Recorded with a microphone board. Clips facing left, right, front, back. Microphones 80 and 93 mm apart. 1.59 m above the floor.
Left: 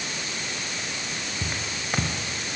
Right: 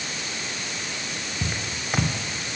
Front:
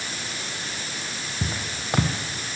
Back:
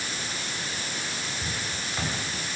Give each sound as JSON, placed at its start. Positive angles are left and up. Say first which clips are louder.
{"t": 1.4, "sound": "footsteps", "louder": "right 1 dB, front 3 dB", "azimuth_deg": -5, "distance_m": 3.5}